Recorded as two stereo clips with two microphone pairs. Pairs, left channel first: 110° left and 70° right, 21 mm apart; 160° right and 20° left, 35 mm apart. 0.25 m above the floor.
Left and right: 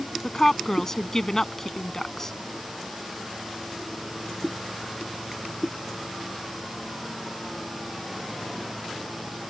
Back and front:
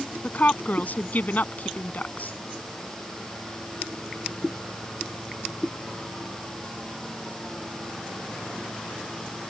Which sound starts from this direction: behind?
A woman speaking, at 0.2 s.